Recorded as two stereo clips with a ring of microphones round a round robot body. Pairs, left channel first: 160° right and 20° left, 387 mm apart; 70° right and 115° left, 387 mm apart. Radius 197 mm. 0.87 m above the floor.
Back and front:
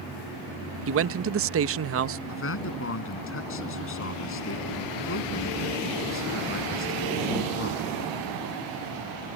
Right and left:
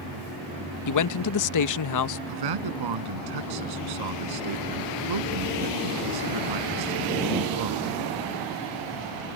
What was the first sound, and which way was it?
A man speaking, 30° right.